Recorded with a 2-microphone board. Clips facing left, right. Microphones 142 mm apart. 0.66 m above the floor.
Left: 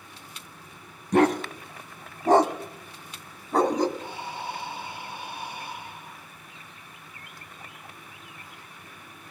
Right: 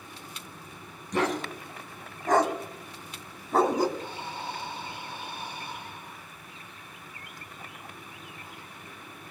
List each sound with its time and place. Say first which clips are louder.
1.1 s a dog barking: left 7 dB; 65° left (ahead or behind), 1.3 m; by 3.9 s 10° right (ahead or behind), 1.2 m
4.0 s breathing: left 1 dB; 20° left (ahead or behind), 3 m